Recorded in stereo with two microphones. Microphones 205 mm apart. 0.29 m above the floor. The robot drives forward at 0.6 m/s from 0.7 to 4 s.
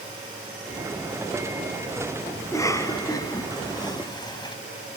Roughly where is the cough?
Centre.